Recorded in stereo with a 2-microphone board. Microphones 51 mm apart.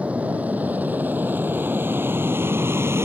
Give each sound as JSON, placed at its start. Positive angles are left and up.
{"t": 0.0, "sound": "an aircraft", "side_deg": -30}